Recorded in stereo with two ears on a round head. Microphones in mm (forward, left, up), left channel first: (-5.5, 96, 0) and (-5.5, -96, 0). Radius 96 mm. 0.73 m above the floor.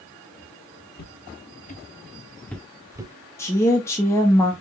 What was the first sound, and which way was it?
Footsteps, 50° left (ahead or behind).